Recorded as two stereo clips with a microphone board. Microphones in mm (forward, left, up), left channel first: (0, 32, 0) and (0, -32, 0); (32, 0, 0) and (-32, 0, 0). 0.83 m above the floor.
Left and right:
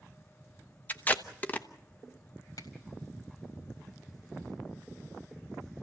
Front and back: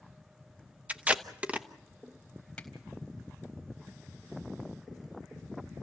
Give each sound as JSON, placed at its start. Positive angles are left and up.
{"t": 0.9, "sound": "tape being pulled", "azimuth_deg": 130, "distance_m": 1.2}
{"t": 2.6, "sound": "a finger snap", "azimuth_deg": 75, "distance_m": 4.0}